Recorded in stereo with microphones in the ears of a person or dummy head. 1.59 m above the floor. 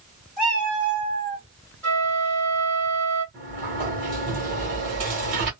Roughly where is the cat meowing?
Left.